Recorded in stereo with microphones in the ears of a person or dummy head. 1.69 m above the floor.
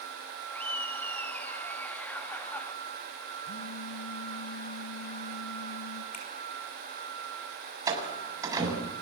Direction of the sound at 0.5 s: 5° left (ahead or behind).